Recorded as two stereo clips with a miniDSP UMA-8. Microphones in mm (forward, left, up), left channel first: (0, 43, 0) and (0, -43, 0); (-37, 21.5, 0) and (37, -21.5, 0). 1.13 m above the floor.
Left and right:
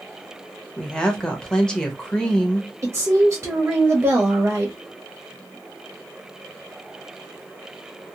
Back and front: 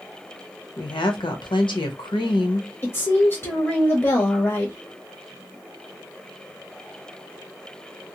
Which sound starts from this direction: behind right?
A woman speaking, at 2.8 s.